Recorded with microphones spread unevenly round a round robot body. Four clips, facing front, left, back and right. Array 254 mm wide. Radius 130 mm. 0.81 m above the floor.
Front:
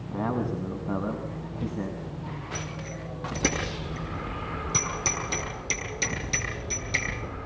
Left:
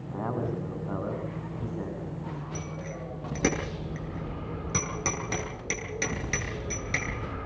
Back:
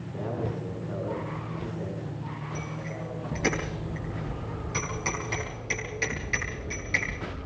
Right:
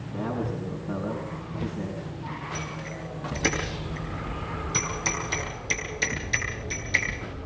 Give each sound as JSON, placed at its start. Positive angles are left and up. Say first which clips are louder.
{"t": 0.1, "sound": "a man speaking", "louder": "right 1 dB, front 4 dB", "azimuth_deg": 5, "distance_m": 8.0}
{"t": 2.5, "sound": "a bicycle bell", "louder": "right 2 dB, back 1 dB", "azimuth_deg": 60, "distance_m": 9.0}